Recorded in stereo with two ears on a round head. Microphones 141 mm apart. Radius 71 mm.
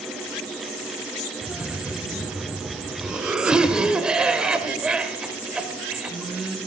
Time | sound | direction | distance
1.4 | a cough | 5° right (ahead or behind) | 1.4 m